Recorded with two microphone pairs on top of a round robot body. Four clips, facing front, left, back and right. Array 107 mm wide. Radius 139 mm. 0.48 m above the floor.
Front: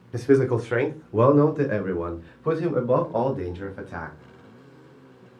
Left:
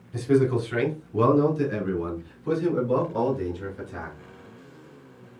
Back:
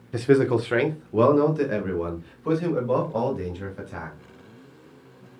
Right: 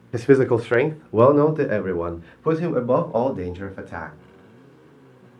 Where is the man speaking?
100° right, 1.4 m; by 4.2 s 75° right, 3 m.